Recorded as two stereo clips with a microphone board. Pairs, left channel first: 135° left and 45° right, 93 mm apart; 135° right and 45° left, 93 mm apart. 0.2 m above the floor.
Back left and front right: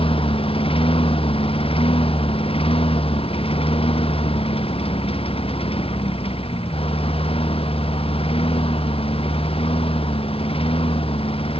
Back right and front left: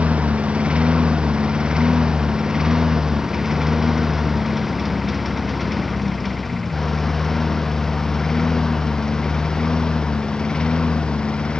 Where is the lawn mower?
120° left; by 11.6 s 145° left.